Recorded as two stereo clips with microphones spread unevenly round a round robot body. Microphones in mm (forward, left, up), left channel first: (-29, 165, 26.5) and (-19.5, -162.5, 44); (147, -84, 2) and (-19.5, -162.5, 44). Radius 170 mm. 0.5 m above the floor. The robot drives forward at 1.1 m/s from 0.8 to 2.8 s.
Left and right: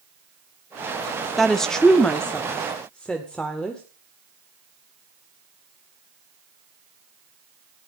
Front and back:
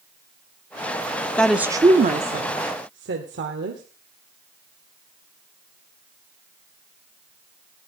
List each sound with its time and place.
1.4 s a woman speaking: 10° left, 0.9 m; by 3.8 s 175° left, 1.5 m